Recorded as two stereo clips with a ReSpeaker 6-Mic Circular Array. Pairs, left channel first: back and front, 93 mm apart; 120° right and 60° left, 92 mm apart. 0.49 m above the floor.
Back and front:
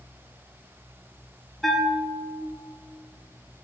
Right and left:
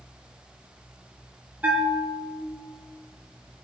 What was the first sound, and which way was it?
A bell, 95° left.